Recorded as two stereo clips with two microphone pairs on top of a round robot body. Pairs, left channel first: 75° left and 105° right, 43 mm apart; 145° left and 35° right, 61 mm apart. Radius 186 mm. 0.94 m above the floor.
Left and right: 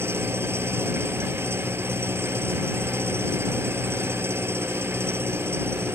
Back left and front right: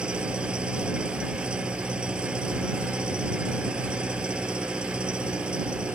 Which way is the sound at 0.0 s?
110° right.